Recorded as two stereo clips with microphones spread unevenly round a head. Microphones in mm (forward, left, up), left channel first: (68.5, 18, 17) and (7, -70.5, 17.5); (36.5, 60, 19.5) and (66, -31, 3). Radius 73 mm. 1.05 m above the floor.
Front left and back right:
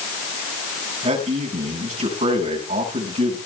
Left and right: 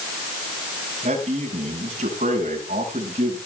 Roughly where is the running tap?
No running tap in this recording.